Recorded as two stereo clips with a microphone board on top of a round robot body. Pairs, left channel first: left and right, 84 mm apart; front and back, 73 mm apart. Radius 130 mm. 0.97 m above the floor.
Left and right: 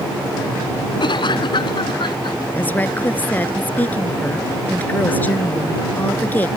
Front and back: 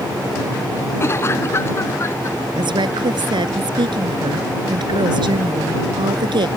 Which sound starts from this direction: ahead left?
A cough, at 1.0 s.